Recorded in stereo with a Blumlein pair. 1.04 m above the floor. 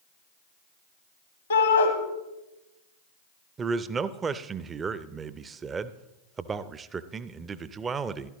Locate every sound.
1.5 s a shout: 60° left, 1.1 m
3.6 s a man speaking: 20° right, 0.5 m